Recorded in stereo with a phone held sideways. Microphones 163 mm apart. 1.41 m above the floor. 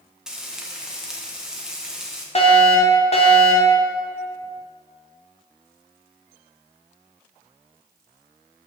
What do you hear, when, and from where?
0.3 s frying: 5° right (ahead or behind), 1.5 m
2.4 s a fire alarm: 40° left (ahead or behind), 2 m